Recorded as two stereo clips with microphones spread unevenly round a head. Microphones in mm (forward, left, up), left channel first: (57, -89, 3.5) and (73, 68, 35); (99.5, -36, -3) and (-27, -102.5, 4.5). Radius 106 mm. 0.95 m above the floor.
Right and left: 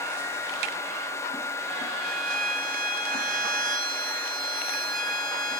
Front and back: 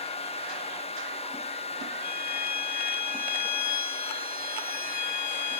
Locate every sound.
2.0 s a violin: 50° left, 1.8 m